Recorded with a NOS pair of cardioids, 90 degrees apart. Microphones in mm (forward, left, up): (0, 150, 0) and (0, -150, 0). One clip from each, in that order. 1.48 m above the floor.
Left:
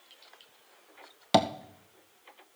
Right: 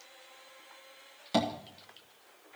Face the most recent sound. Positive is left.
turn(degrees=65)